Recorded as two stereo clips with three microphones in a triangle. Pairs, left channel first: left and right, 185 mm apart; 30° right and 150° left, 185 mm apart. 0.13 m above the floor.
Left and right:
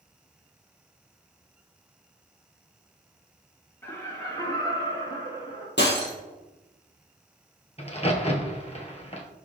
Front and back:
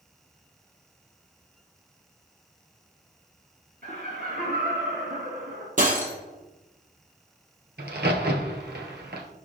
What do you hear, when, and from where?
3.8 s laughter: 165° left, 2 m; by 5.7 s 145° left, 2.5 m
5.8 s breaking glass: 105° left, 2.5 m
7.8 s a crack: 140° left, 1.6 m